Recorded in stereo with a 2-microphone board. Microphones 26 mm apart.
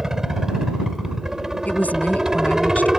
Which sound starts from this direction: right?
A helicopter, at 0.0 s.